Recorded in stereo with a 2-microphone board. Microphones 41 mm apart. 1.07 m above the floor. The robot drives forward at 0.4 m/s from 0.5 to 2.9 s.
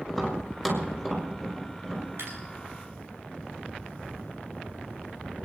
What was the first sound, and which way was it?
Tapping, 5° right (ahead or behind).